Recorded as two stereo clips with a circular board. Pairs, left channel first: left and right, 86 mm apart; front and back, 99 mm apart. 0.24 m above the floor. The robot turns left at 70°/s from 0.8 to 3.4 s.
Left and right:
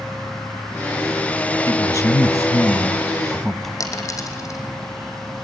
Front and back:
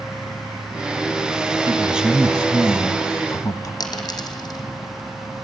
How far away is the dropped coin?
About 3 m.